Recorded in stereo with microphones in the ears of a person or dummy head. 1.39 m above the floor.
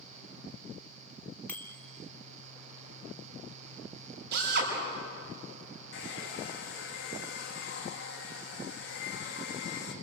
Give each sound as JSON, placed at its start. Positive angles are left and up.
{"t": 1.5, "sound": "a bicycle bell", "side_deg": 15, "distance_m": 2.5}
{"t": 4.3, "sound": "a drill", "side_deg": -60, "distance_m": 6.0}
{"t": 5.9, "sound": "a hair dryer", "side_deg": 65, "distance_m": 2.5}